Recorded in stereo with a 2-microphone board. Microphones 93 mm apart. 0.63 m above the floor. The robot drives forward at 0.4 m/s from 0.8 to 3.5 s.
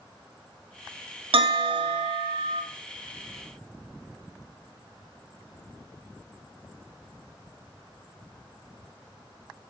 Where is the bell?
75° right (ahead or behind), 0.9 m; by 2.6 s 65° right (ahead or behind), 1.0 m.